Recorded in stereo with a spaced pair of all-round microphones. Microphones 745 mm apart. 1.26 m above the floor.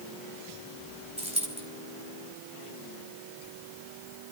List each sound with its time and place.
1.2 s a dropped coin: 10° right (ahead or behind), 3 m